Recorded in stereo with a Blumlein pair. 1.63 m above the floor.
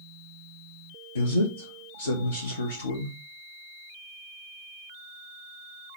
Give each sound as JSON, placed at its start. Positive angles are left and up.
{"t": 1.1, "sound": "a man speaking", "azimuth_deg": 70, "distance_m": 0.5}